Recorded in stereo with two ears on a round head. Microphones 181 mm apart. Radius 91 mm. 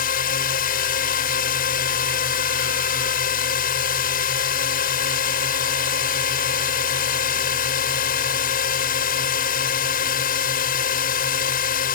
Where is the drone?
50° left (ahead or behind).